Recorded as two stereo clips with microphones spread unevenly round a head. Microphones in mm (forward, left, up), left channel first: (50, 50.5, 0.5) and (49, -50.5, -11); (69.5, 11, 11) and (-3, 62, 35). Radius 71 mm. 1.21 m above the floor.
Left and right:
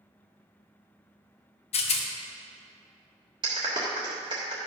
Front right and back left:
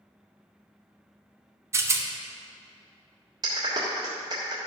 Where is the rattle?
95° left, 1.0 m.